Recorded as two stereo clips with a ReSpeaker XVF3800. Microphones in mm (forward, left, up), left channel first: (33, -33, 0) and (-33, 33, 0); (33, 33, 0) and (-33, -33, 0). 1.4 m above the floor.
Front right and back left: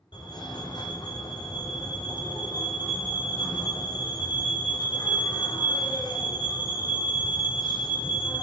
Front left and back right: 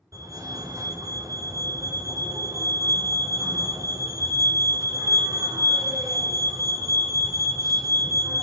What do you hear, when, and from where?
0.1 s a fire alarm: 80° right, 7 m